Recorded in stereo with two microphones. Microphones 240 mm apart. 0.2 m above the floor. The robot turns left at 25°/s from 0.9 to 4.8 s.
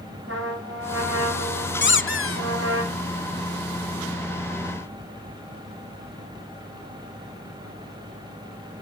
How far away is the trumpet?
About 9.5 m.